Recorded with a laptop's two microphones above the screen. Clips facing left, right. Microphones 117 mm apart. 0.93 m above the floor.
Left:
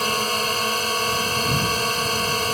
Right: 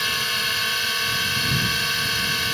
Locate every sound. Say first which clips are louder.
0.0 s a drone: left 6 dB; 40° left (ahead or behind)